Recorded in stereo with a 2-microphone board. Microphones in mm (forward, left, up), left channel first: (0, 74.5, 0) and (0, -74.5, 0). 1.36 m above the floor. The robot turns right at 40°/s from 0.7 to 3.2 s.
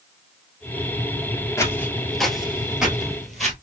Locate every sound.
1.6 s footsteps: 20° left (ahead or behind), 1.4 m; by 3.5 s centre (ahead or behind), 1.6 m